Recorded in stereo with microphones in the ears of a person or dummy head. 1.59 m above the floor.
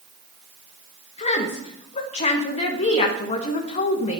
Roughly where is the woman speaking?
Left.